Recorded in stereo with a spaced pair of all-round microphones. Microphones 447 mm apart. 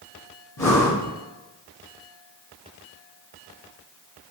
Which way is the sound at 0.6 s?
35° left (ahead or behind).